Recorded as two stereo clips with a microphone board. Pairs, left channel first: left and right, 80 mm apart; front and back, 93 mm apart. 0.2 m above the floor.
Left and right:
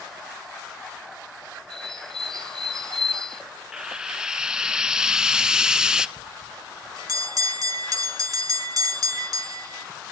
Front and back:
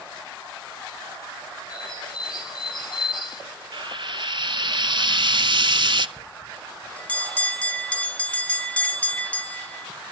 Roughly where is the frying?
Behind.